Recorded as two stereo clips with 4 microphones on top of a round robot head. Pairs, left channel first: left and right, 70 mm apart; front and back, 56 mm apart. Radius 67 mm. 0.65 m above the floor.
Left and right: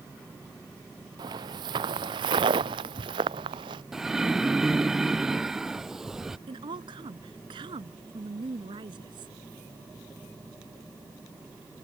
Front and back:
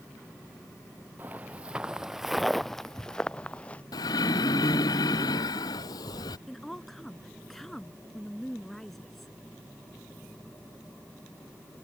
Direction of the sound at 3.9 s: 5° right.